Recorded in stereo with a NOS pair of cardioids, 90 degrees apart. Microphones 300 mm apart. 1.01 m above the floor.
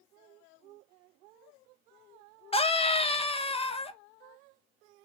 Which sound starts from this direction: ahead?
A scream, at 2.5 s.